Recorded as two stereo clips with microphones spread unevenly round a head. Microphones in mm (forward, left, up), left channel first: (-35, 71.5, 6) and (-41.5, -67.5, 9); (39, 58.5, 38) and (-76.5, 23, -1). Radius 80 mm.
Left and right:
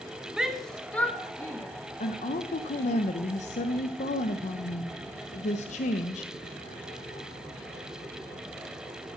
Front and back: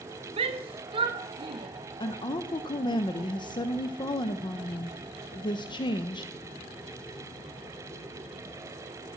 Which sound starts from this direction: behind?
A shout, at 0.4 s.